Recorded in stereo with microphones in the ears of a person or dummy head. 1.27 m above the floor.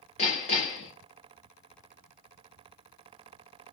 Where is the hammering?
40° left (ahead or behind), 1.0 m.